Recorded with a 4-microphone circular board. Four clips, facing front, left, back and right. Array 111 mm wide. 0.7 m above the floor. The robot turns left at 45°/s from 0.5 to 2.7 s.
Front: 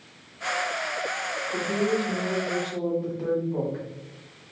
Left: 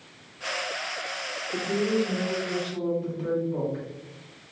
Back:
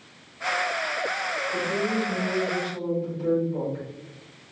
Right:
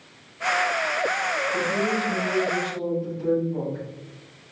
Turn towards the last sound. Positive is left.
turn(degrees=25)